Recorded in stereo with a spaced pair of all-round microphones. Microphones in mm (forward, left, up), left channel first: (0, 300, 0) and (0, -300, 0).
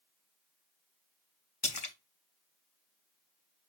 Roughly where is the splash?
Left.